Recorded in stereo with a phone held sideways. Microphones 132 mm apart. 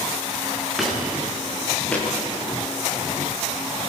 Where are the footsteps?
Centre (ahead or behind), 7 m; by 2.1 s 10° left (ahead or behind), 7.5 m.